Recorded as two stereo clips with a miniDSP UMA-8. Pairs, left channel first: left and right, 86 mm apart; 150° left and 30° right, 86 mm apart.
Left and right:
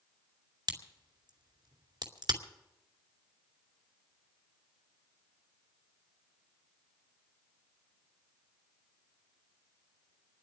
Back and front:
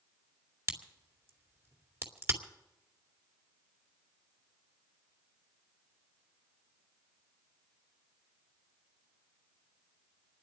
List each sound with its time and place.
0.7 s a crack: 85° right, 2 m